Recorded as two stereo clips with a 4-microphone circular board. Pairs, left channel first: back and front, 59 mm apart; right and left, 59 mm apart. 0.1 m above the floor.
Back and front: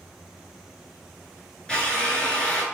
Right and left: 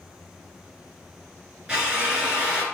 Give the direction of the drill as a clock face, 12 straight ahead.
8 o'clock.